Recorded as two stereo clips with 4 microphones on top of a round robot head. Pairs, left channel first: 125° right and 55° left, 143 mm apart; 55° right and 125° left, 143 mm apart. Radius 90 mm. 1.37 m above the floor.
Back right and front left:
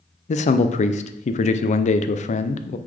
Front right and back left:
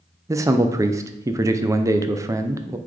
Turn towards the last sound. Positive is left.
turn(degrees=-165)